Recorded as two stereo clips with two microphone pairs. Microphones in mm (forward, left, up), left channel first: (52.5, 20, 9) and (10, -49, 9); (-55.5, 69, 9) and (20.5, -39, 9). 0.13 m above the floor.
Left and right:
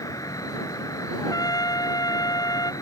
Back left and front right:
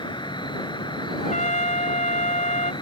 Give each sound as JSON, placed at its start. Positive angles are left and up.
{"t": 0.0, "sound": "an insect", "azimuth_deg": 85}
{"t": 1.2, "sound": "a trumpet", "azimuth_deg": 100}